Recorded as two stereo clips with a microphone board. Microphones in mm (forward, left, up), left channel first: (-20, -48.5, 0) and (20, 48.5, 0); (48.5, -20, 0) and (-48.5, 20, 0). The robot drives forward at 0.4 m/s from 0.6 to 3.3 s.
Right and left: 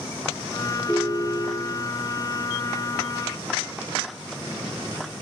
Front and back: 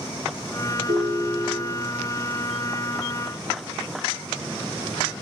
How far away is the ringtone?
About 1.9 m.